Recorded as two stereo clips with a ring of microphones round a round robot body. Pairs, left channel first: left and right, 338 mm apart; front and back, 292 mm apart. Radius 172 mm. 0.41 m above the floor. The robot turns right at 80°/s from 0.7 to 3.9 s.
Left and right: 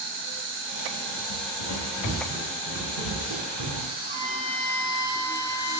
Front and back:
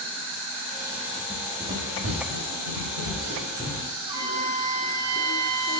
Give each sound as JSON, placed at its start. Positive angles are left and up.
{"t": 0.0, "sound": "an insect", "azimuth_deg": -100, "distance_m": 2.5}
{"t": 1.3, "sound": "running footsteps", "azimuth_deg": 70, "distance_m": 1.7}
{"t": 4.0, "sound": "a trumpet", "azimuth_deg": -155, "distance_m": 1.0}